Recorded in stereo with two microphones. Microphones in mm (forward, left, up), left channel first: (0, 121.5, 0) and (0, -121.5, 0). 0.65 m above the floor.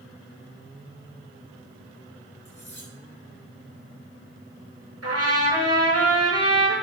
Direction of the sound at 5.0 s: 80° right.